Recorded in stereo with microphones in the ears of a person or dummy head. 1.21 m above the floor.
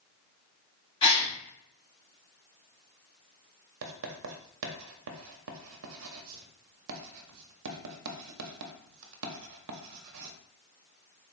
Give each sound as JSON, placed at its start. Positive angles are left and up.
{"t": 1.0, "sound": "a gasp", "side_deg": 25, "distance_m": 0.9}
{"t": 3.8, "sound": "writing", "side_deg": -70, "distance_m": 0.7}